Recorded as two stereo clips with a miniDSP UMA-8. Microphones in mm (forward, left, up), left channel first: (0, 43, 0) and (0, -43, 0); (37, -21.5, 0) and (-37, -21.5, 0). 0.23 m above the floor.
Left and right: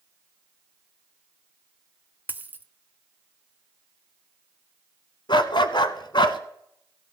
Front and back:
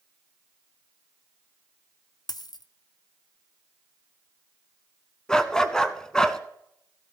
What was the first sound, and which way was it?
A dropped coin, 20° right.